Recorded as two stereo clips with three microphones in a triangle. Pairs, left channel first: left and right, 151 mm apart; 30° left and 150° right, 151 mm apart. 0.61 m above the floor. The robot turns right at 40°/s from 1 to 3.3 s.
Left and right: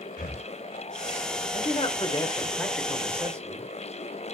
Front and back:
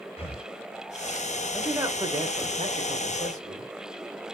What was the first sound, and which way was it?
Breathing, 80° left.